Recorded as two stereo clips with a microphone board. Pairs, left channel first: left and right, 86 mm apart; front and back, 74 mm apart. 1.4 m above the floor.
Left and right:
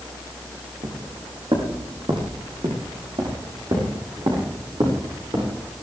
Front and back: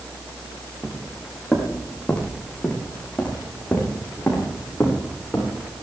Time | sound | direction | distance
0.8 | footsteps | 85° right | 4 m